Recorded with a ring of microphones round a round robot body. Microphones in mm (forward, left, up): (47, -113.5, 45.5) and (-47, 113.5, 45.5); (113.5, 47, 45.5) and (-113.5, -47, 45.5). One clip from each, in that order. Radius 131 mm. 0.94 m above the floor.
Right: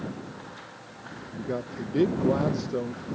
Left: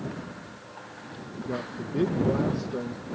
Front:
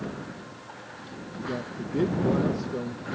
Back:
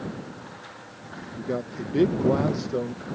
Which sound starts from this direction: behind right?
A man speaking, at 1.4 s.